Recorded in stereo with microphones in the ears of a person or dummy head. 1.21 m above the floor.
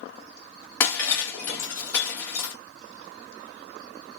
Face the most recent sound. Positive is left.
turn(degrees=15)  # may be behind; listen again after turning